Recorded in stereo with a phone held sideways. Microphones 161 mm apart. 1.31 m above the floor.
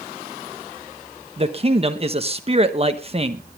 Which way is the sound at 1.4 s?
35° right (ahead or behind).